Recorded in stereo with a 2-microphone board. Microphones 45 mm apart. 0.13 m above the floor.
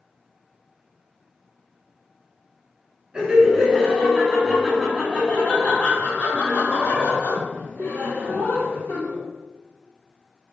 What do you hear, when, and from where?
3.1 s laughter: 20° right (ahead or behind), 1.6 m; by 9.2 s 50° left (ahead or behind), 3 m